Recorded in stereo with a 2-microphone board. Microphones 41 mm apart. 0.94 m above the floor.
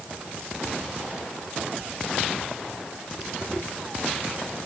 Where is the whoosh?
No whoosh in this recording.